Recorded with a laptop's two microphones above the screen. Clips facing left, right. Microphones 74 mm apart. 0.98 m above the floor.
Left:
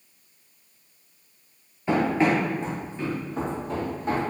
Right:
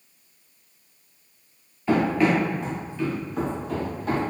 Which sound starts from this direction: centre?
Running footsteps, at 1.9 s.